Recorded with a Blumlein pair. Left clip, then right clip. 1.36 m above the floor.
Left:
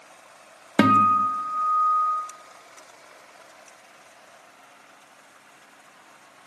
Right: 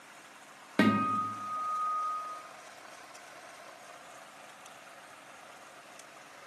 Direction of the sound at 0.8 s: 25° left.